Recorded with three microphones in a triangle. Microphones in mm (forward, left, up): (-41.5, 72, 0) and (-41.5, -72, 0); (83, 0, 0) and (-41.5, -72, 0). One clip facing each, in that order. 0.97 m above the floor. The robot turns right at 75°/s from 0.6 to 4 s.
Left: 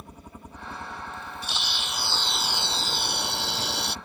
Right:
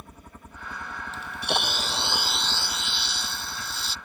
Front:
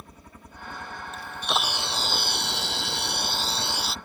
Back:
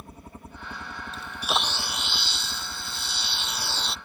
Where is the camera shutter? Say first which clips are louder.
Right 6 dB, even; 90° right; by 4.0 s 120° left.